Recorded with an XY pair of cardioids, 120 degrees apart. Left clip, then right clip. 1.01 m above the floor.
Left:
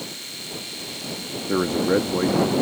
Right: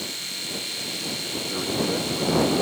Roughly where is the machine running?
Ahead.